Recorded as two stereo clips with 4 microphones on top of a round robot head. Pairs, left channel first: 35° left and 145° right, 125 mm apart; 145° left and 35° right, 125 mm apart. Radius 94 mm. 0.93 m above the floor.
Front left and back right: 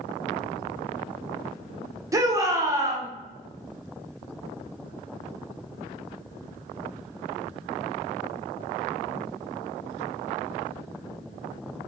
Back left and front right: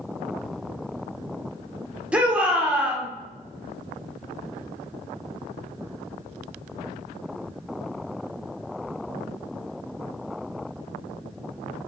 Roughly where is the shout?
Right.